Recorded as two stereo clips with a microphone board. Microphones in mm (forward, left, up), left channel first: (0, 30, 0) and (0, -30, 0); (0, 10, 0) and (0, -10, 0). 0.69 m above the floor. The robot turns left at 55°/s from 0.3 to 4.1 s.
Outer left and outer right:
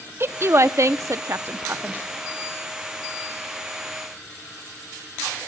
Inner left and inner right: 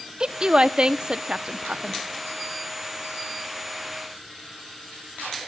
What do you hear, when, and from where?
0.2 s a woman speaking: 40° right (ahead or behind), 0.8 m; by 2.0 s 25° right (ahead or behind), 0.8 m